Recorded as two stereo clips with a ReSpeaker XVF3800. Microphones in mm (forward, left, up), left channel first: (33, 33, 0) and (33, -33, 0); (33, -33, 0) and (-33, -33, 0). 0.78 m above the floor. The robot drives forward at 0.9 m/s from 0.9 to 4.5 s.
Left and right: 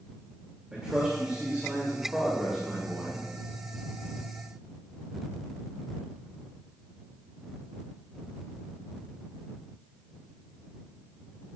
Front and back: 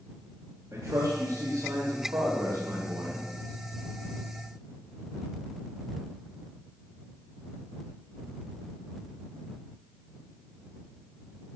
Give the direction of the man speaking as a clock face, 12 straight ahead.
5 o'clock.